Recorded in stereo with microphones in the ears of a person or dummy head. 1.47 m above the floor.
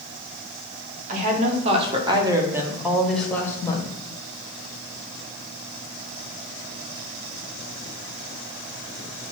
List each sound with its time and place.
1.1 s a woman speaking: 40° right (ahead or behind), 1.6 m; by 3.9 s 25° left (ahead or behind), 1.2 m